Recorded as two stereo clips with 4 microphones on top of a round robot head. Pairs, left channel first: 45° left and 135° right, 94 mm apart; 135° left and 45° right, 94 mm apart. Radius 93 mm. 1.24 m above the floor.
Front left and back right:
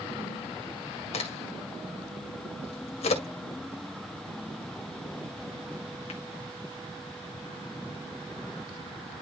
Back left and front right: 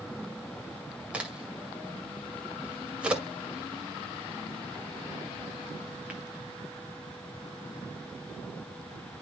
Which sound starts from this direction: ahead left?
A crack, at 1.1 s.